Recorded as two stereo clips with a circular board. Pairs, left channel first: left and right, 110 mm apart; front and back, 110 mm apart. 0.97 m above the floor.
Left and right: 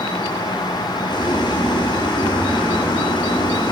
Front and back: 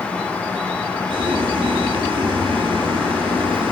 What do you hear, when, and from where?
1.1 s boiling: 135° left, 6.5 m